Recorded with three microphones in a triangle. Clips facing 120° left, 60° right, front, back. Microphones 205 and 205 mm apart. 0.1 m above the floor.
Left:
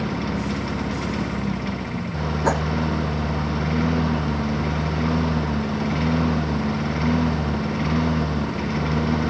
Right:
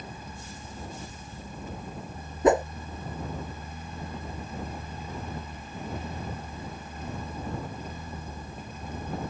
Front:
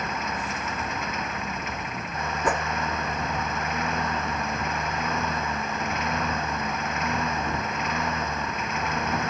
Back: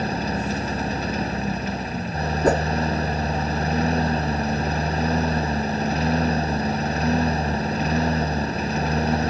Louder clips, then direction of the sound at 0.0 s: Left 18 dB, back 7 dB; 120° left.